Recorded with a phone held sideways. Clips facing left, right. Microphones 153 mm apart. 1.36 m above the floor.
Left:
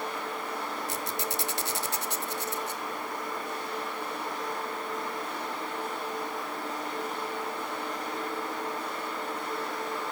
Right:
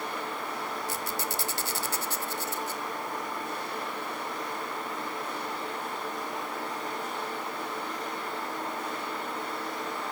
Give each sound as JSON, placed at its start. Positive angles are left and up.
{"t": 0.9, "sound": "a squeak", "side_deg": 20, "distance_m": 1.2}